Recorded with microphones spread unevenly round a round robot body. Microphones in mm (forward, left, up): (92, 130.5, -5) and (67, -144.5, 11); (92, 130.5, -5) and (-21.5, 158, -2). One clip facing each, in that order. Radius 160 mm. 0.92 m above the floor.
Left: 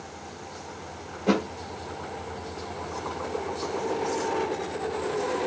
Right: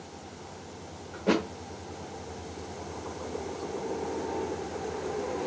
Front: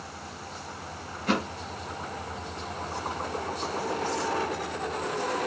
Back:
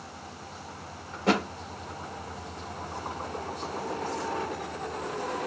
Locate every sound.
1.1 s a thud: 165° left, 1.4 m